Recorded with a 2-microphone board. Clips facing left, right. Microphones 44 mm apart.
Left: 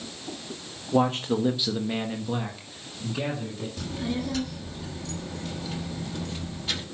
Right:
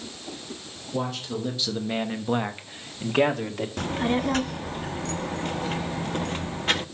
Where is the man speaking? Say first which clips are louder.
Left 6 dB; 45° left (ahead or behind), 1.4 m; by 3.7 s 65° right (ahead or behind), 2.5 m.